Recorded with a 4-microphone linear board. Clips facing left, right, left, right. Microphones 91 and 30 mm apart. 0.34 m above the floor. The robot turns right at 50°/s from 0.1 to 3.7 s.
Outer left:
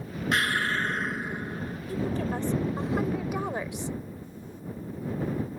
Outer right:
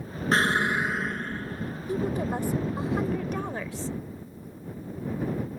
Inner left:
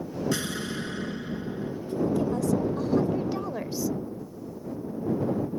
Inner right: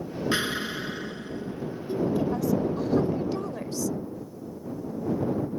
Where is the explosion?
35° right; by 1.8 s 35° left.